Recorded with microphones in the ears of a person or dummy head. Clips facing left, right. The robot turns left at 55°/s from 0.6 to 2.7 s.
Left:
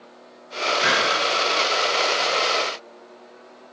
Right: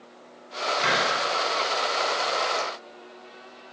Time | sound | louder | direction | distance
0.8 | a hiss | left 2 dB | 5° left (ahead or behind) | 4.5 m